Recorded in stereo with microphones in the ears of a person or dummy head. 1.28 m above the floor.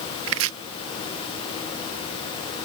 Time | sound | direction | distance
0.3 | chopping | 80° right | ?